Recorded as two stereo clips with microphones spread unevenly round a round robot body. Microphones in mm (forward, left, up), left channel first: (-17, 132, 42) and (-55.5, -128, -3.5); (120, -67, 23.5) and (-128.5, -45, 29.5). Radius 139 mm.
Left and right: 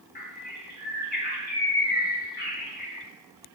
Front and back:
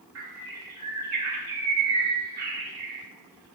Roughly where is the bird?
Behind left.